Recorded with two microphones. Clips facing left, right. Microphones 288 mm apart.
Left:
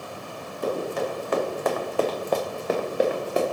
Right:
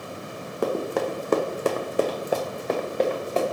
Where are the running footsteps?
80° right, 0.7 m; by 3.4 s 15° left (ahead or behind), 1.2 m.